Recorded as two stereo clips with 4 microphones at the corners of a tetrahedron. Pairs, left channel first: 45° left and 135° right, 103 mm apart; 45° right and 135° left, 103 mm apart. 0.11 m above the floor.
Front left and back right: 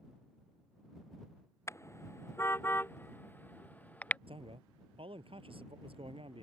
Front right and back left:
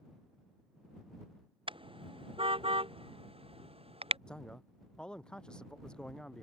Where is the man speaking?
125° right.